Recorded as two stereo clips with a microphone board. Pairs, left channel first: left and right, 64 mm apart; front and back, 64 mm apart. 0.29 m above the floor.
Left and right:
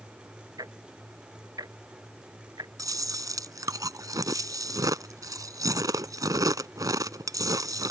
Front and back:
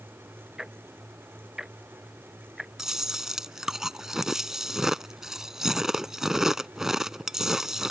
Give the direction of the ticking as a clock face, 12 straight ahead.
3 o'clock.